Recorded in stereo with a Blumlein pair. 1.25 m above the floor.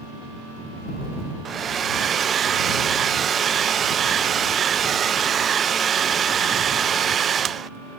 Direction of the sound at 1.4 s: 20° right.